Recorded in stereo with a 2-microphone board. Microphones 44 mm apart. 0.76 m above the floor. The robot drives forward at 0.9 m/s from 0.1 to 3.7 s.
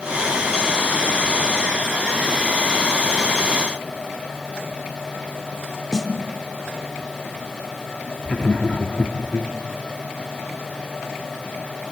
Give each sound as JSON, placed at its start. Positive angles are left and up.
{"t": 5.9, "sound": "a snare drum", "side_deg": 10, "distance_m": 2.5}
{"t": 8.2, "sound": "laughter", "side_deg": 25, "distance_m": 1.4}